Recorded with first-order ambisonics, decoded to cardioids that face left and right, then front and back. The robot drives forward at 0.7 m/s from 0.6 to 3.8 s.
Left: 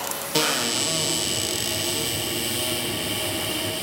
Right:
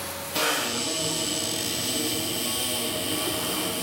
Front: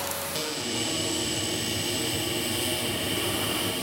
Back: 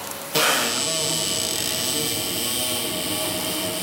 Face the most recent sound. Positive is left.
turn(degrees=165)